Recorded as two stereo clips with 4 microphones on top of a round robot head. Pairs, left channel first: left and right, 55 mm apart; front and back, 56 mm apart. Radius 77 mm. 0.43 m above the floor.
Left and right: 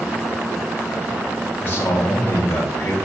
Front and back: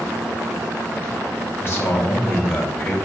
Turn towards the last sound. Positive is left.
turn(degrees=50)